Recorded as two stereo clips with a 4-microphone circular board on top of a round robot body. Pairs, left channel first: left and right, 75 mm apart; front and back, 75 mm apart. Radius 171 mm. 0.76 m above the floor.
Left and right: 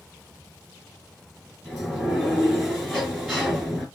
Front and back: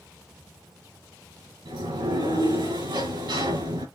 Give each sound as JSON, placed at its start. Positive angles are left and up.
{"t": 1.6, "sound": "a sliding door", "azimuth_deg": 175, "distance_m": 5.0}